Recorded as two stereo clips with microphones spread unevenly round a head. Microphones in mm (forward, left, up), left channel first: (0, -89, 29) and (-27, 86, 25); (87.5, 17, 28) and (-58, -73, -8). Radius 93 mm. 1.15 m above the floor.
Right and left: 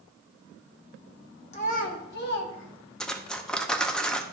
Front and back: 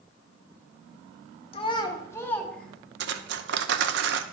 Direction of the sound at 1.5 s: 25° right.